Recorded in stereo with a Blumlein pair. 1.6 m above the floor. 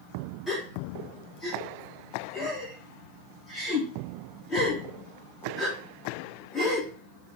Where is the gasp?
15° left, 1.3 m.